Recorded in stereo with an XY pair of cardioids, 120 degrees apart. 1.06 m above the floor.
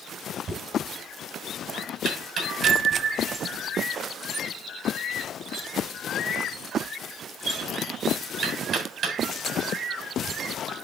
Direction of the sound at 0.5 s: 55° right.